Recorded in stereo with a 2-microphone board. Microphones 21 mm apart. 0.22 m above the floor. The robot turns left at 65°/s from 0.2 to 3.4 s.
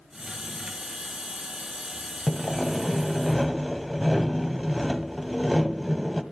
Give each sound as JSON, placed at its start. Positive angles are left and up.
{"t": 2.3, "sound": "sawing", "side_deg": 20, "distance_m": 1.5}